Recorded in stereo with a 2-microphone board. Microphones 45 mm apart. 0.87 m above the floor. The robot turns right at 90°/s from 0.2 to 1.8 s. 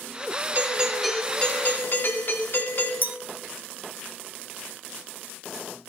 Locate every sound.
0.6 s a doorbell: 45° right, 2.5 m; by 2.9 s 65° left, 2.5 m
3.0 s a clink: 40° right (ahead or behind), 0.9 m